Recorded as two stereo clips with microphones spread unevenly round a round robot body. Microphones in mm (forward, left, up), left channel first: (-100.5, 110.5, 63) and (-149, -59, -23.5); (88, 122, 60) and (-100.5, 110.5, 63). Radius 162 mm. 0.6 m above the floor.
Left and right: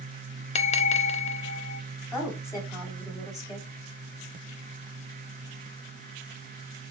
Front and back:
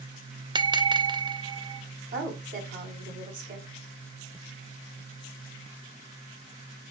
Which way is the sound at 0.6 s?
115° left.